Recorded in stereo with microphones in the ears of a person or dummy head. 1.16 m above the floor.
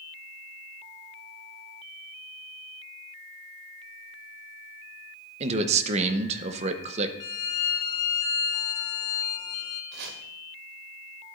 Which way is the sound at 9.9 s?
65° right (ahead or behind).